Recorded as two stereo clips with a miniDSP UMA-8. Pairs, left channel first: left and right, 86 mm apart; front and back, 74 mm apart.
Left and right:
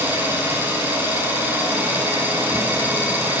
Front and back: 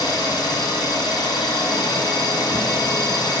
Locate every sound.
0.0 s an engine running: 25° right, 1.0 m